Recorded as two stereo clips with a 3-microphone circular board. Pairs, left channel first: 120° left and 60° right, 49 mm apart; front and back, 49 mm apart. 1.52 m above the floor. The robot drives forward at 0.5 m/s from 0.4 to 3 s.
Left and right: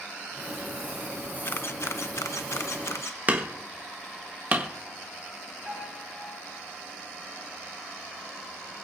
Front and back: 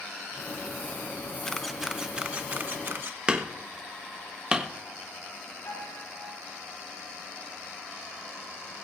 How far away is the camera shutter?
About 0.6 m.